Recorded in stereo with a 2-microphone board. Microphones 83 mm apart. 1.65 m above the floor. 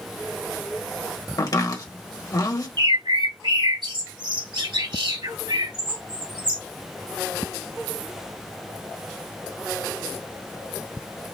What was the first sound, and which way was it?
Chopping, 45° left (ahead or behind).